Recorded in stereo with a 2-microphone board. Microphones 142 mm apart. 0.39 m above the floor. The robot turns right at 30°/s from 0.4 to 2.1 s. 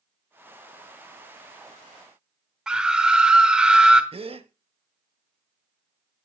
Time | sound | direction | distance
2.7 | a scream | 5° right (ahead or behind) | 0.9 m
4.1 | a gasp | 40° right (ahead or behind) | 0.8 m